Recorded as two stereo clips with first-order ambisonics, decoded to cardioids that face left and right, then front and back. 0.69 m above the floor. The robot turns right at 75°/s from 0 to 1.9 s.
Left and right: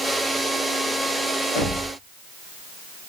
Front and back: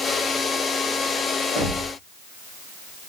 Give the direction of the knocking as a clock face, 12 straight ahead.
9 o'clock.